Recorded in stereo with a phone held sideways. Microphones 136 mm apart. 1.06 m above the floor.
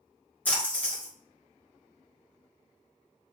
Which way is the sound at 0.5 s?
10° left (ahead or behind).